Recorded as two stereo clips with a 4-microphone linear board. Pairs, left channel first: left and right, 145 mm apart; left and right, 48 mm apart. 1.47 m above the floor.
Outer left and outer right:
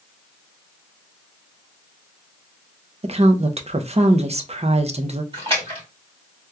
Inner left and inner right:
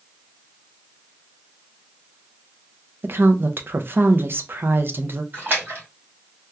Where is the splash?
40° right (ahead or behind), 2 m.